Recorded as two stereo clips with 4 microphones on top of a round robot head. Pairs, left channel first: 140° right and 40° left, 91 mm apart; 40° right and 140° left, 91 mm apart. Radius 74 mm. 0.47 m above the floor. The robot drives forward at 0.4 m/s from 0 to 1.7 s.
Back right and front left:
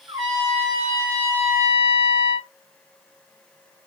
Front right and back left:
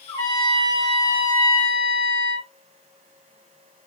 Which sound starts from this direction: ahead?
A trumpet, at 0.1 s.